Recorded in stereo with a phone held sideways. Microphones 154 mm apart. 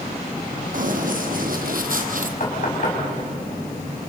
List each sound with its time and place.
0.7 s running footsteps: 60° right (ahead or behind), 3 m
2.4 s knocking: 55° left (ahead or behind), 6 m